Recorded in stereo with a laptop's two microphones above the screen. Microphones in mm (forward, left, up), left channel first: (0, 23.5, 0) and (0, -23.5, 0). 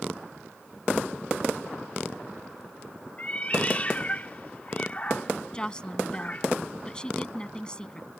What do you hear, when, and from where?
3.2 s a cat meowing: 30° left (ahead or behind)
5.5 s a woman speaking: 20° left (ahead or behind)